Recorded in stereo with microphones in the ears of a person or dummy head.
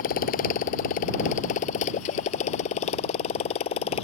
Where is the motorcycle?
60° left (ahead or behind); by 4.0 s 45° left (ahead or behind).